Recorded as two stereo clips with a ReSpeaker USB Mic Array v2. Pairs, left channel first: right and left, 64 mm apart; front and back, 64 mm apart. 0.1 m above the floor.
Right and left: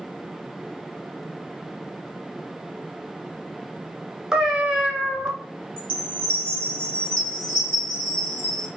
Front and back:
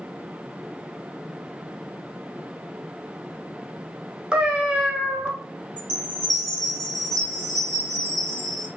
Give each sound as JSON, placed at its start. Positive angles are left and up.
{"t": 4.3, "sound": "a cat meowing", "azimuth_deg": 150, "distance_m": 0.6}
{"t": 5.8, "sound": "a chime", "azimuth_deg": 70, "distance_m": 1.7}